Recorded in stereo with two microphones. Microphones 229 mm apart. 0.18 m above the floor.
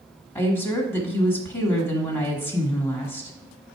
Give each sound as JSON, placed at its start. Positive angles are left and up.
{"t": 0.3, "sound": "a woman speaking", "side_deg": 10, "distance_m": 1.4}